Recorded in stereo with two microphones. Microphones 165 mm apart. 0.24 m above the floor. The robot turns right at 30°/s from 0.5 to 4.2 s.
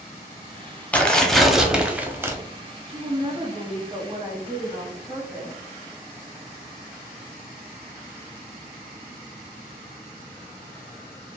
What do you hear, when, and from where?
0.9 s tearing paper: 165° left, 0.5 m; by 2.4 s 150° right, 0.5 m
2.9 s a woman speaking: 60° right, 1.2 m; by 5.6 s 20° right, 1.2 m